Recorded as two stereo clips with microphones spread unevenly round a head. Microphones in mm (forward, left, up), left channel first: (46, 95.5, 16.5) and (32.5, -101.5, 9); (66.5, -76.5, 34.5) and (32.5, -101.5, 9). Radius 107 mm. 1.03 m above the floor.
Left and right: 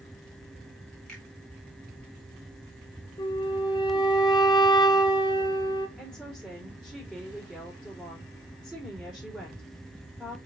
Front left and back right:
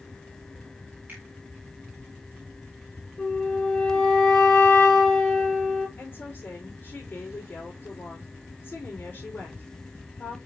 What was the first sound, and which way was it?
A finger snap, 170° left.